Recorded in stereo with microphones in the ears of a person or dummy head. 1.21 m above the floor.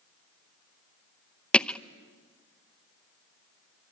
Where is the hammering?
Centre (ahead or behind), 0.5 m.